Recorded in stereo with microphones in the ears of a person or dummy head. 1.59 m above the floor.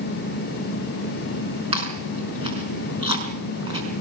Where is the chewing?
30° right (ahead or behind), 5 m.